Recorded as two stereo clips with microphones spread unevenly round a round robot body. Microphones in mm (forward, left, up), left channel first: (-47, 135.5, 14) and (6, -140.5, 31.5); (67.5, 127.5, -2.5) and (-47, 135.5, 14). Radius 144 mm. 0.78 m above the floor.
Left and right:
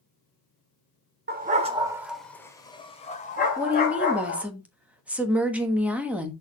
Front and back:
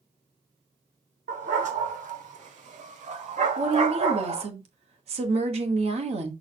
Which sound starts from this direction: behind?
A woman speaking, at 3.6 s.